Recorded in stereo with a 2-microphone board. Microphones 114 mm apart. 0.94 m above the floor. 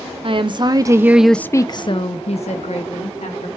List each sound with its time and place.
0.2 s a woman speaking: 50° right (ahead or behind), 1.0 m; by 3.5 s 80° left, 1.7 m